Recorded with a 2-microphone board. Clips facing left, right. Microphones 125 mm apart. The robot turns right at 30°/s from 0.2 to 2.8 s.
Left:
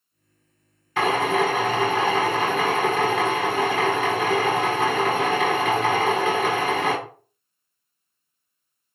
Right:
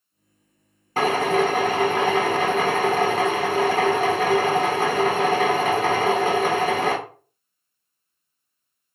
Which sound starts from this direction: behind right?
A drill, at 1.0 s.